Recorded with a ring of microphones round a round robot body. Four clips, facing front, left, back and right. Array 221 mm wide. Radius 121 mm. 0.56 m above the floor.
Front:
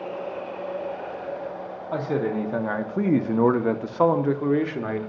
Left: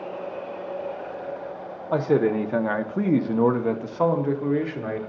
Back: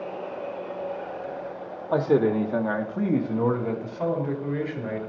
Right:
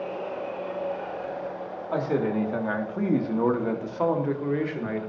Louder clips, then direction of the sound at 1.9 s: Left 5 dB, back 5 dB; 135° left.